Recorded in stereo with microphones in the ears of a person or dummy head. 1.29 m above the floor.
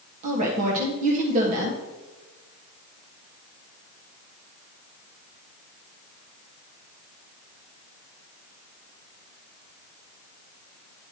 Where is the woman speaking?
45° right (ahead or behind), 1.4 m.